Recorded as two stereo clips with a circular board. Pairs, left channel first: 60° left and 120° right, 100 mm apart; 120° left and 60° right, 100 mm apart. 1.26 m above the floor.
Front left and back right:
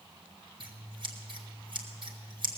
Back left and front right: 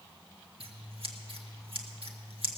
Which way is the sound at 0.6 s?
85° right.